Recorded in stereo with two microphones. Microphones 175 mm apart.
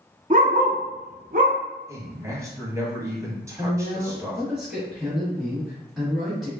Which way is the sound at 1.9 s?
20° right (ahead or behind).